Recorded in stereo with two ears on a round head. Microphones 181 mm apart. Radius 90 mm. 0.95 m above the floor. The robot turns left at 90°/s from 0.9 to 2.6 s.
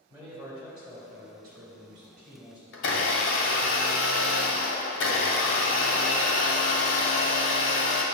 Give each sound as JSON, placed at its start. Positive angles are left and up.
{"t": 0.1, "sound": "a man speaking", "azimuth_deg": -20, "distance_m": 2.5}
{"t": 2.7, "sound": "a blender", "side_deg": 65, "distance_m": 1.6}